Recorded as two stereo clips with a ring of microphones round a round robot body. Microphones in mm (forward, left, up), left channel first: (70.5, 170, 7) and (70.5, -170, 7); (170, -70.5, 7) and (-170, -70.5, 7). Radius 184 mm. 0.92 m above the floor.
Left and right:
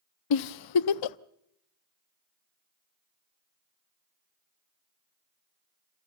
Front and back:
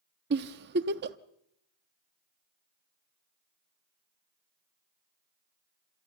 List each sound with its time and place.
0.3 s a giggle: 120° left, 0.5 m